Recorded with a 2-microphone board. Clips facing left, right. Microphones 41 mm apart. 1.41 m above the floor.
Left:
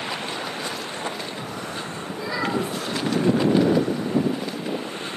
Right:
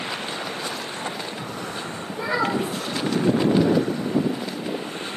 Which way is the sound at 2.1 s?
30° right (ahead or behind).